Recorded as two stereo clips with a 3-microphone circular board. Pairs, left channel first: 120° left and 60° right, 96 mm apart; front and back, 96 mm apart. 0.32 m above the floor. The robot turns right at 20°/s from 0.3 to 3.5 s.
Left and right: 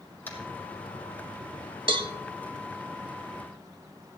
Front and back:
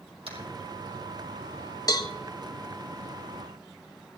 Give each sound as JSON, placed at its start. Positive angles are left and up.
{"t": 0.3, "sound": "tapping", "azimuth_deg": -170, "distance_m": 3.5}
{"t": 1.9, "sound": "a cowbell", "azimuth_deg": -45, "distance_m": 1.0}